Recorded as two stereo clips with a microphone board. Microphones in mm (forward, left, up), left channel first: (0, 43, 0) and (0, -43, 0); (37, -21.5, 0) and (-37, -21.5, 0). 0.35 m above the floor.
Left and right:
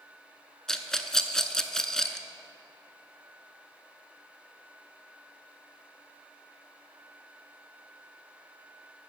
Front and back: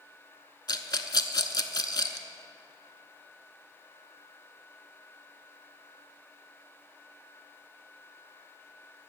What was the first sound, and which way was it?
A rattle, 5° left.